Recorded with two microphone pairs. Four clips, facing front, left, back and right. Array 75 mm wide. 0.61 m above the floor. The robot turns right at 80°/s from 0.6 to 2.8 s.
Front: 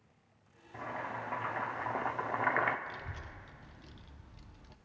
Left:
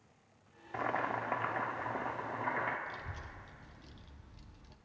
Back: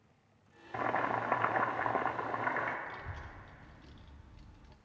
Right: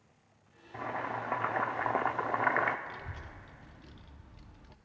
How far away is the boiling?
About 0.7 m.